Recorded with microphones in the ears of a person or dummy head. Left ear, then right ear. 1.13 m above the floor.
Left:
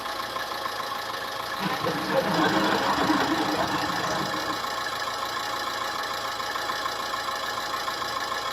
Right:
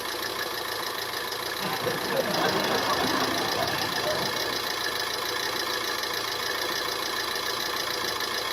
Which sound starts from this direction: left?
Laughter, at 1.6 s.